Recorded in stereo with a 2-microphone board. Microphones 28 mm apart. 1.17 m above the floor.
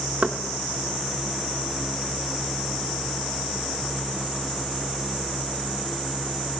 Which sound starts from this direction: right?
Knocking, at 0.2 s.